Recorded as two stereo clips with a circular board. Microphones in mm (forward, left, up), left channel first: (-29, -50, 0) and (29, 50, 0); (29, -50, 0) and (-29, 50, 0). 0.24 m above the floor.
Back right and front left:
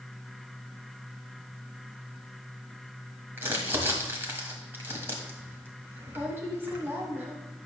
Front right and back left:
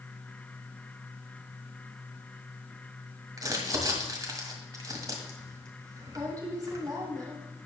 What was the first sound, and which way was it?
Crumpling, 110° left.